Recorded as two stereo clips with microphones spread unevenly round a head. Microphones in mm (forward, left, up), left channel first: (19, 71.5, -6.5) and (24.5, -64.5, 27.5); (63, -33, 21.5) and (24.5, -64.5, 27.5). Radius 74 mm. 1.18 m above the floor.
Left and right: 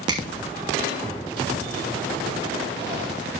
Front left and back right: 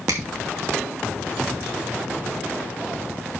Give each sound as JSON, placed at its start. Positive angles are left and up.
{"t": 0.1, "sound": "a finger snap", "azimuth_deg": -150, "distance_m": 2.5}